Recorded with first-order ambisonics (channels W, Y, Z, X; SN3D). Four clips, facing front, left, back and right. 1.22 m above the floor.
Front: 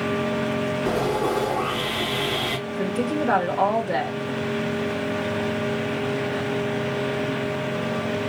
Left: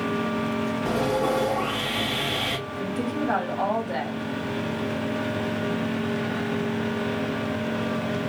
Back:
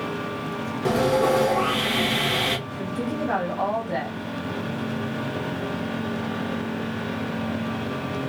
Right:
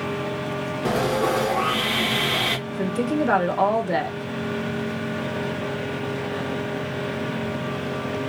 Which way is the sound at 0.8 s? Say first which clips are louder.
Right 3 dB, back 6 dB; 130° right.